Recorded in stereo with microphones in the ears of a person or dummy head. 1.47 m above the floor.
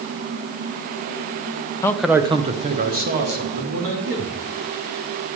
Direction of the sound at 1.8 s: 15° left (ahead or behind).